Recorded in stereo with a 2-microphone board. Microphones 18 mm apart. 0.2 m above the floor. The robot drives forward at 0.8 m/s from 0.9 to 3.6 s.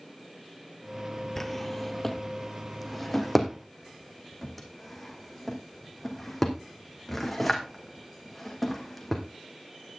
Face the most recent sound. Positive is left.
turn(degrees=5)  # may be behind; listen again after turning